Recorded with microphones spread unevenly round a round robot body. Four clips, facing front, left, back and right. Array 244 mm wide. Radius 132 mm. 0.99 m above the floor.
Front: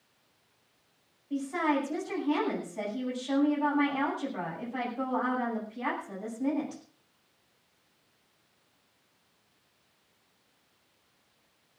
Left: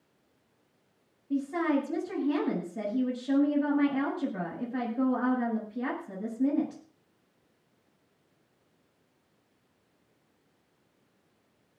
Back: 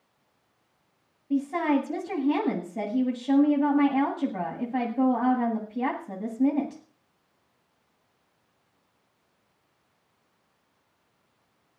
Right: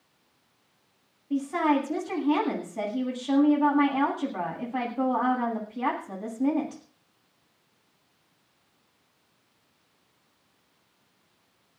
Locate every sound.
1.3 s a woman speaking: 155° left, 9 m